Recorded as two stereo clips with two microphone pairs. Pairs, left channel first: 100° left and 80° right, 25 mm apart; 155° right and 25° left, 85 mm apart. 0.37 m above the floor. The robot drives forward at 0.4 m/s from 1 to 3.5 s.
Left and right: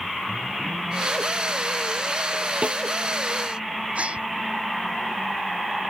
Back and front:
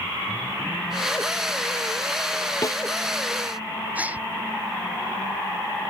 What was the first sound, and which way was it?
A snare drum, 105° right.